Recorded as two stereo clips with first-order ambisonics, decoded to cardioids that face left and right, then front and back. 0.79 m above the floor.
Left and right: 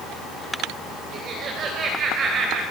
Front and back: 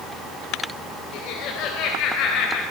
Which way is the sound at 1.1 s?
35° right.